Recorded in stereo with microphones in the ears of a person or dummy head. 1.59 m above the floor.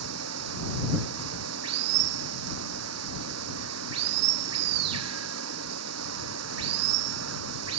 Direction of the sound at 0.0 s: 90° right.